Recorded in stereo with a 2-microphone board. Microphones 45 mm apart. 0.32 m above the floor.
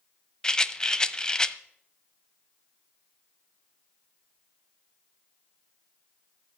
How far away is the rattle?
About 0.8 m.